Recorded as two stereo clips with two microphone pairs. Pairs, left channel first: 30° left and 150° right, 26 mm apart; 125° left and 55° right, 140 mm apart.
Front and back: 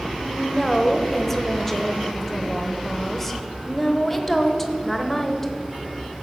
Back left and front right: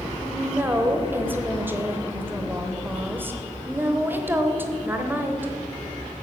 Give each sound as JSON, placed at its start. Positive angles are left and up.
{"t": 0.1, "sound": "a woman speaking", "azimuth_deg": -30, "distance_m": 0.9}